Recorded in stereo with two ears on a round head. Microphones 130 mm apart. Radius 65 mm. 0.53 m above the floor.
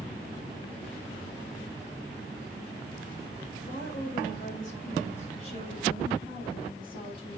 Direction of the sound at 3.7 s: 65° left (ahead or behind).